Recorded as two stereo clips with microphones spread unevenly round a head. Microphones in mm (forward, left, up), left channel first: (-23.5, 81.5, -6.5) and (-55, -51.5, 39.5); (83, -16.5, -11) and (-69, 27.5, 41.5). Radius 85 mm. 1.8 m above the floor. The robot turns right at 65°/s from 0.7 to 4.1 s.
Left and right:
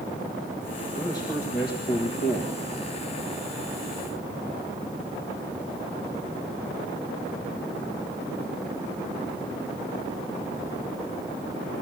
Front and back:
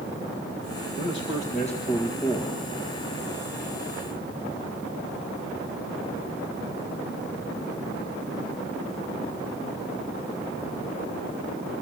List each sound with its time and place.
1.0 s a man speaking: 10° right, 2.0 m; by 2.7 s 100° left, 2.0 m